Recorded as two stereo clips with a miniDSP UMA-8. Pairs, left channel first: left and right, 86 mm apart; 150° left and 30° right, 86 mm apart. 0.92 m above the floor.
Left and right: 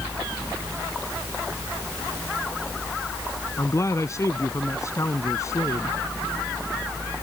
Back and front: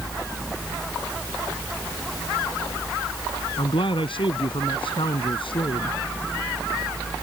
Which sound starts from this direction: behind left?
A man speaking, at 3.6 s.